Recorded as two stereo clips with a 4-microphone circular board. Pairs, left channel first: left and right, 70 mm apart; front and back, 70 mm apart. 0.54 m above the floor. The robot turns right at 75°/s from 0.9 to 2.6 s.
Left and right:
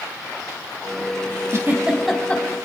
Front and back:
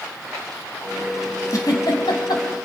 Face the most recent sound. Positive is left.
turn(degrees=40)